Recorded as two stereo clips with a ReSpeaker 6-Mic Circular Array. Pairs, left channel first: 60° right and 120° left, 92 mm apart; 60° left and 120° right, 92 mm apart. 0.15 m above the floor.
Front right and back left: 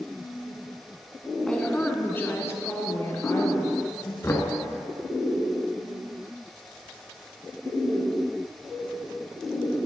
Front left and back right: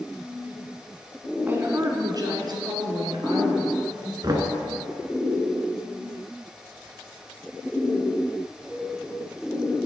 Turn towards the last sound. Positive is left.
turn(degrees=-105)